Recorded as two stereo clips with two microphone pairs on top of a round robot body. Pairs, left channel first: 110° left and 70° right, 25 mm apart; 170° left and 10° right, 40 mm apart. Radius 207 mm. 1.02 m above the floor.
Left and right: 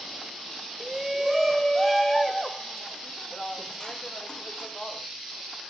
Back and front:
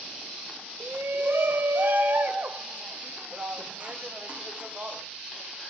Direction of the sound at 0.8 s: Straight ahead.